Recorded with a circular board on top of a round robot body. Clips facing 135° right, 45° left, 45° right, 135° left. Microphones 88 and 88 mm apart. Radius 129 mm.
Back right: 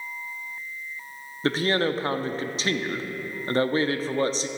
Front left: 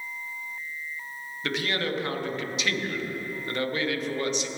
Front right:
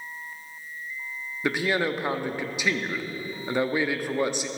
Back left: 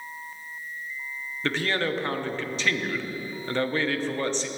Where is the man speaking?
115° right, 0.8 m.